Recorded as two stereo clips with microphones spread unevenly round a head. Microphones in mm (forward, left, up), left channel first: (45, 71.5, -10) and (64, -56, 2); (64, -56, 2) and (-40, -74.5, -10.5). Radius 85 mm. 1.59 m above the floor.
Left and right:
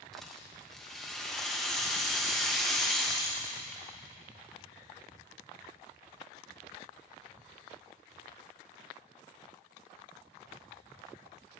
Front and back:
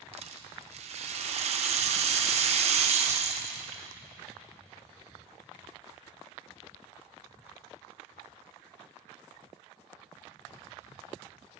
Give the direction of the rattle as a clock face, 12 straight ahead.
6 o'clock.